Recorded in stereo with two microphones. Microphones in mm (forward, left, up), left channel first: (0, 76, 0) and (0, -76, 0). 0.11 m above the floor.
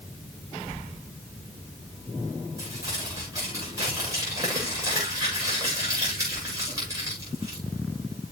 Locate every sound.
2.6 s crumpling: 20° right (ahead or behind), 7.5 m